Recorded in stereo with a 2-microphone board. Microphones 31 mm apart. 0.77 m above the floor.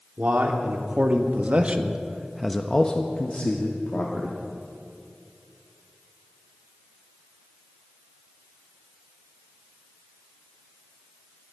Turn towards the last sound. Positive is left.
turn(degrees=55)  # may be behind; listen again after turning